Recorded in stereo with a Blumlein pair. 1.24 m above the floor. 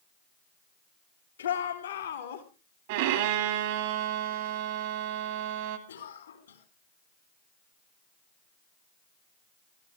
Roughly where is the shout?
Left.